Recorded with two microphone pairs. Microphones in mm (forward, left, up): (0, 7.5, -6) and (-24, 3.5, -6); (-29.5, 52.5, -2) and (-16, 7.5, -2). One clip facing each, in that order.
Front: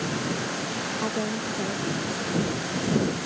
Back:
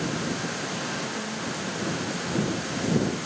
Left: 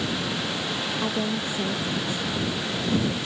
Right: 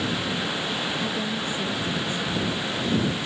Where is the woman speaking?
45° left.